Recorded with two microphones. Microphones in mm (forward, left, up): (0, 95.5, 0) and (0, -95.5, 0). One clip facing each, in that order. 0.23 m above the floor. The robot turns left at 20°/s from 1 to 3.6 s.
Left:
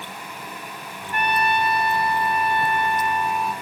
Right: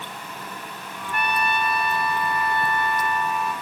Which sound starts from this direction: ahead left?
A trumpet, at 1.1 s.